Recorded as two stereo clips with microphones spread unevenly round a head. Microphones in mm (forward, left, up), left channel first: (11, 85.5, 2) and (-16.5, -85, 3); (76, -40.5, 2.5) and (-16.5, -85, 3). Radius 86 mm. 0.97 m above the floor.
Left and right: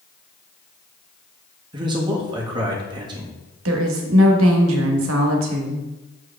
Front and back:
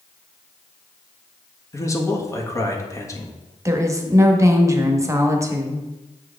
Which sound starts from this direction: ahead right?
A man speaking, at 1.7 s.